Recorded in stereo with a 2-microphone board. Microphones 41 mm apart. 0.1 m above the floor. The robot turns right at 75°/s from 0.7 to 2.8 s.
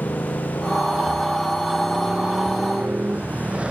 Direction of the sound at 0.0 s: 85° left.